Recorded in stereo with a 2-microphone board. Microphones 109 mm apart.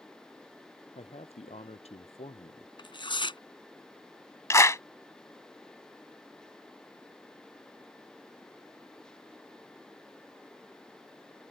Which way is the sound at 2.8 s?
50° left (ahead or behind).